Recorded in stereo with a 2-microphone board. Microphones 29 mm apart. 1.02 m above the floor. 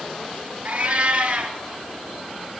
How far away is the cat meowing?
About 3.5 m.